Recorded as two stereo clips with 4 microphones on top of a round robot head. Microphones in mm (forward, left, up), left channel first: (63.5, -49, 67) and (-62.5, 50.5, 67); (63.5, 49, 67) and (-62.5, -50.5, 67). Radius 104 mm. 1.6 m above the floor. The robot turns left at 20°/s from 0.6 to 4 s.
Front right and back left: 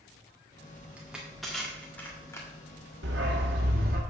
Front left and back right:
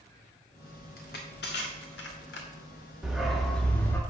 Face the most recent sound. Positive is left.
turn(degrees=110)